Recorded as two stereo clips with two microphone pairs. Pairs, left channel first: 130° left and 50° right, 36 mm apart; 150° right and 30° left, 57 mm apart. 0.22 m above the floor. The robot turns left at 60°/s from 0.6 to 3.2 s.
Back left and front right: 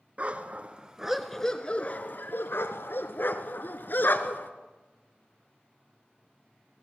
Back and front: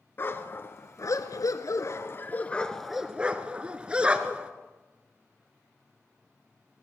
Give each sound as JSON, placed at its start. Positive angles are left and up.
{"t": 0.2, "sound": "a dog barking", "azimuth_deg": -100, "distance_m": 1.4}